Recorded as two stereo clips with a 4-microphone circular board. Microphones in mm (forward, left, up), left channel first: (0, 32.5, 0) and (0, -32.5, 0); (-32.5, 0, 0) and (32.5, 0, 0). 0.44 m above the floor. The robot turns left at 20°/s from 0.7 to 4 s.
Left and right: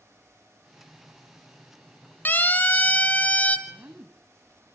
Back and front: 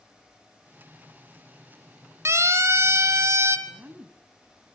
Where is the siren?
35° left, 3 m; by 3.6 s 30° left, 2 m.